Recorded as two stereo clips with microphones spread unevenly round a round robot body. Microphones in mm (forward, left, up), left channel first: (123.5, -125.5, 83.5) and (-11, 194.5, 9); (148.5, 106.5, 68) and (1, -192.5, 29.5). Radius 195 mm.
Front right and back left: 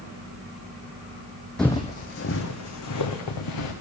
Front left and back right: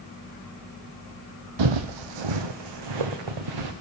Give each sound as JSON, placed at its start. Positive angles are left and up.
{"t": 1.6, "sound": "footsteps", "azimuth_deg": -150, "distance_m": 0.6}